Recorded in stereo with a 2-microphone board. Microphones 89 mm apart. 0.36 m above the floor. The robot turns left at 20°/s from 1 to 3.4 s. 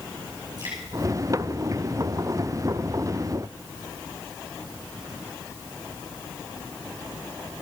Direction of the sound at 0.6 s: 50° right (ahead or behind).